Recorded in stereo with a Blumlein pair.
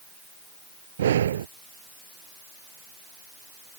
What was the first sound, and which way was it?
Breathing, 65° right.